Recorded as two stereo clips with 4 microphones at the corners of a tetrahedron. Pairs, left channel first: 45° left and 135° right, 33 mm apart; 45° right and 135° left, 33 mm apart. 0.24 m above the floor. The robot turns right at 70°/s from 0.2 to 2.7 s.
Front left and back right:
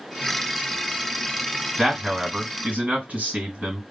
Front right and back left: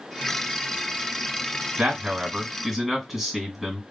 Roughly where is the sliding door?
I don't hear a sliding door.